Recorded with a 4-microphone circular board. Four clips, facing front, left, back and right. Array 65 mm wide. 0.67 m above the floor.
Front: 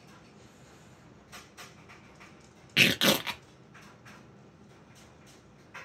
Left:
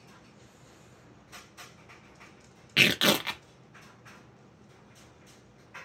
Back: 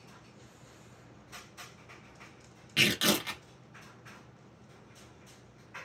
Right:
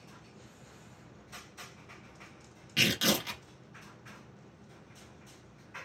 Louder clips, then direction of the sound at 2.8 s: Left 5 dB, front 3 dB; 55° left.